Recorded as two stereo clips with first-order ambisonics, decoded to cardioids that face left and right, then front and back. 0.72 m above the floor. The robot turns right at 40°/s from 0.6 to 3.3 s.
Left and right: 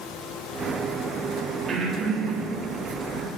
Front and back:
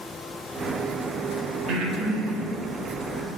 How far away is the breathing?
About 1.5 m.